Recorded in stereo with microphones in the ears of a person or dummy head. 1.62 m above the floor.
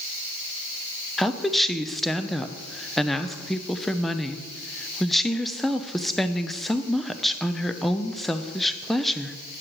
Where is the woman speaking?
Centre (ahead or behind), 0.7 m.